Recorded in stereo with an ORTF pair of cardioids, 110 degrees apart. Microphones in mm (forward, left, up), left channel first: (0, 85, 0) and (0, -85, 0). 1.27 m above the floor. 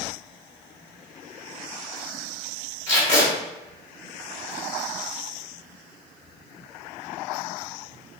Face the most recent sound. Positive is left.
turn(degrees=40)